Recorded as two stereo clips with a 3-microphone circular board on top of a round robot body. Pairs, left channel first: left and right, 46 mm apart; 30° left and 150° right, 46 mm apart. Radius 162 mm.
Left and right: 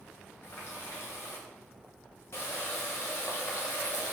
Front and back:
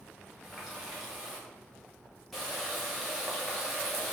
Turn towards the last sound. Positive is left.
turn(degrees=120)